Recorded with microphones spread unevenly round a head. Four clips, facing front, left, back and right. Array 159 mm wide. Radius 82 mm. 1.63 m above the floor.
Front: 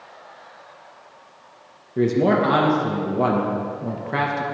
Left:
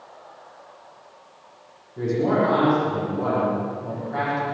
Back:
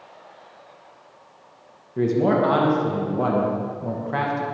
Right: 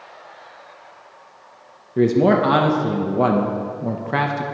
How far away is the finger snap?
No finger snap in this recording.